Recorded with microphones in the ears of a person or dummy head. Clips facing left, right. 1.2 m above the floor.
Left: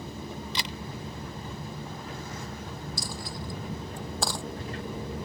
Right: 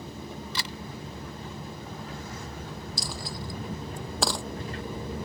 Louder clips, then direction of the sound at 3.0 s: Even; 60° right (ahead or behind).